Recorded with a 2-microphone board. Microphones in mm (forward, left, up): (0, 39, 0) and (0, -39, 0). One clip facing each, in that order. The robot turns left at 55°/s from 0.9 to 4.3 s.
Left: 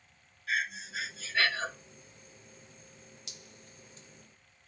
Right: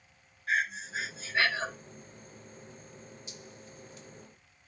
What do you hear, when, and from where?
0.5 s breathing: 120° right, 1.1 m; by 1.7 s 165° right, 1.1 m
3.3 s dripping: 65° left (ahead or behind), 0.7 m; by 4.1 s 25° left (ahead or behind), 0.7 m